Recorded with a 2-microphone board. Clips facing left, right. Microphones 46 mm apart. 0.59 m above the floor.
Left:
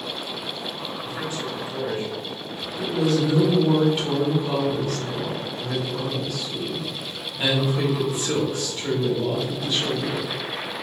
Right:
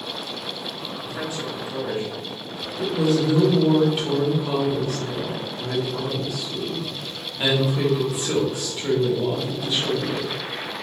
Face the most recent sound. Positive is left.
turn(degrees=-10)  # may be behind; listen again after turning